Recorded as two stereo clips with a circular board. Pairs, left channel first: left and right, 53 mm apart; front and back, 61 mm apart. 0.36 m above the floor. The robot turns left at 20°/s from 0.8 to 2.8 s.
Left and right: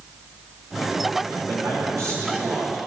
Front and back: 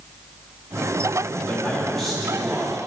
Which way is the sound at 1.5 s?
80° right.